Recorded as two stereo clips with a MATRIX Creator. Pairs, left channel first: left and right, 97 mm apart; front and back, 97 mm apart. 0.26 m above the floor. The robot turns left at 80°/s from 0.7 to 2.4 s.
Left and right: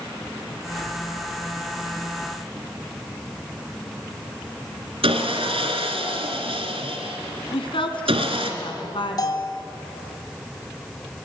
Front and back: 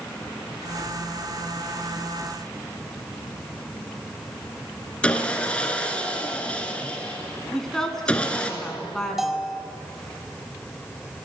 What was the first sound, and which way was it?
Sawing, 80° right.